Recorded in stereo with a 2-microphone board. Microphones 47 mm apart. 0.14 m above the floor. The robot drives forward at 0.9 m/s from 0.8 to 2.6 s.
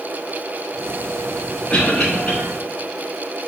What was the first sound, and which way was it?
A cough, 25° left (ahead or behind).